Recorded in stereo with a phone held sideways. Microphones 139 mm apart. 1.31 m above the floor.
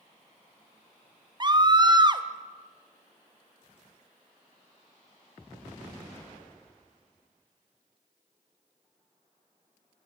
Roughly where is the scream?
Right.